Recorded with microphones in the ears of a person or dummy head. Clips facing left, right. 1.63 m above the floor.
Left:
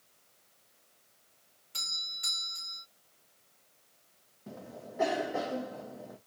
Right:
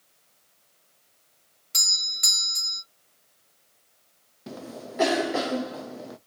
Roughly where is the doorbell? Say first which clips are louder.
Right 7 dB; right.